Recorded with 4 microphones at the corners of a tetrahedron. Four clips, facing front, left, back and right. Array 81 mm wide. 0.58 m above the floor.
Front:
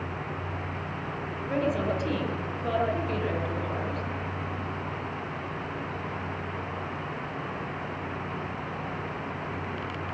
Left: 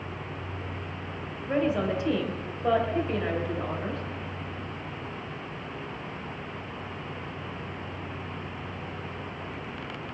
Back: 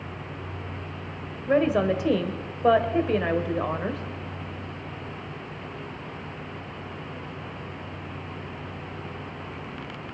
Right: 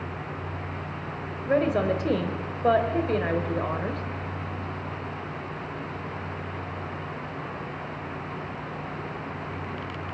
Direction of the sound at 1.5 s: 150° right.